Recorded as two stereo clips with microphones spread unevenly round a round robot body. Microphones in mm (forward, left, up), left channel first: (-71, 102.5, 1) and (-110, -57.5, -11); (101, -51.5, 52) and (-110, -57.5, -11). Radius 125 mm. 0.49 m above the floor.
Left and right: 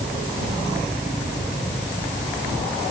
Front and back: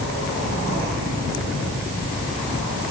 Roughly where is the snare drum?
No snare drum in this recording.